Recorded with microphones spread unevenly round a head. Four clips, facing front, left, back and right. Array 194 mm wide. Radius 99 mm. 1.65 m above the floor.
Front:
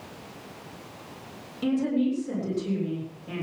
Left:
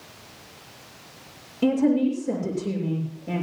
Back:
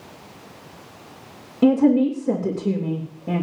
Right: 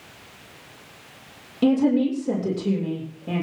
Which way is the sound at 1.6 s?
165° right.